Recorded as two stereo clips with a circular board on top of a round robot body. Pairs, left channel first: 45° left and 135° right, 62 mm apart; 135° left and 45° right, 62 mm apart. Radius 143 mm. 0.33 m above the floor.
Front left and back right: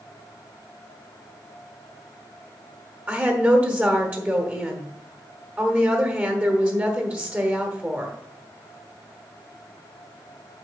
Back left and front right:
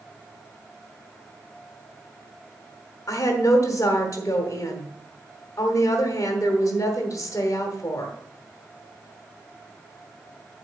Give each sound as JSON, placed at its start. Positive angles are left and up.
{"t": 3.1, "sound": "a woman speaking", "azimuth_deg": 165, "distance_m": 1.7}